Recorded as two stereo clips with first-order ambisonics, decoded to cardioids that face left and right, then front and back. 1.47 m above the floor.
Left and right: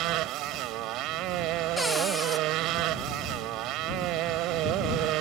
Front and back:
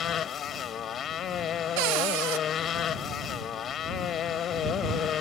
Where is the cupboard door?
175° left.